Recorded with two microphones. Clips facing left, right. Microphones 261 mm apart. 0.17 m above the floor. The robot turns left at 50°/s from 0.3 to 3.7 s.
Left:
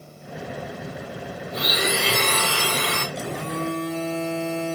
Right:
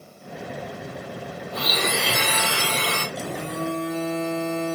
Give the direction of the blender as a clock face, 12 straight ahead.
11 o'clock.